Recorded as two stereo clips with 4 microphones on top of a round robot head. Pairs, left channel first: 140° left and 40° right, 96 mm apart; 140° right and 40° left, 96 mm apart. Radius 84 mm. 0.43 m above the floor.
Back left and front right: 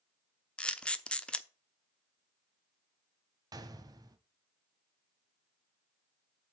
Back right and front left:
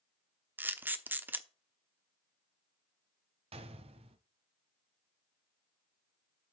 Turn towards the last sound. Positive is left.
turn(degrees=15)